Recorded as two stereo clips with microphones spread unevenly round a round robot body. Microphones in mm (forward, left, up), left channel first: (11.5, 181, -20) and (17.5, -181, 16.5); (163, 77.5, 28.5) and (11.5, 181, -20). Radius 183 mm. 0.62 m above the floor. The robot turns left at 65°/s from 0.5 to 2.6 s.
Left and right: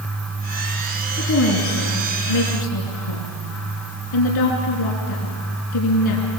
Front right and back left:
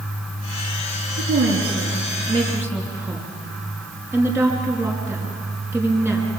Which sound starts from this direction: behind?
A woman speaking, at 1.2 s.